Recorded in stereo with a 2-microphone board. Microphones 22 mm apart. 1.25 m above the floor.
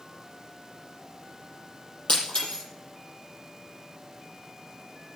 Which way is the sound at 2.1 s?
60° left (ahead or behind).